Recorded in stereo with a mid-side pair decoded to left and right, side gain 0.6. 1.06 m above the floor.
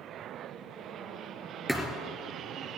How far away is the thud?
About 3.5 m.